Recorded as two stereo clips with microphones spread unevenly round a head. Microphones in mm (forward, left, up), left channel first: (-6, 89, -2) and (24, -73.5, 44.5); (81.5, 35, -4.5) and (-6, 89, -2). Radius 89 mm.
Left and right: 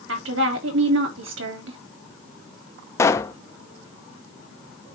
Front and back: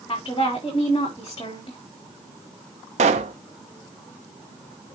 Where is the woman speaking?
100° right, 3 m.